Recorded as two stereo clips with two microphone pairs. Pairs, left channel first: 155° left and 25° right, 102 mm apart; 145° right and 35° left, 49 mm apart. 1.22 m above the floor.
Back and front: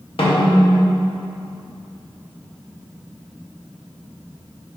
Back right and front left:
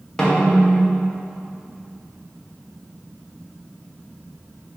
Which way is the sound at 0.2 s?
140° left.